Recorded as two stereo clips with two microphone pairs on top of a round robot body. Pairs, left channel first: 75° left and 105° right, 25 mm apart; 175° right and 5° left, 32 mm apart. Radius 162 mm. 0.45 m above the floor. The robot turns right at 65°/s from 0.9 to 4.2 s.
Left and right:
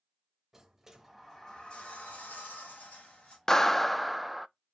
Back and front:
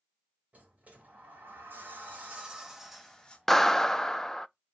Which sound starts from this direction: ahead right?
A sliding door, at 0.5 s.